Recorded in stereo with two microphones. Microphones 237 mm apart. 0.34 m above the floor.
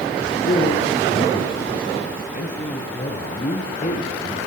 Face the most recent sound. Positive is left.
turn(degrees=35)  # may be behind; listen again after turning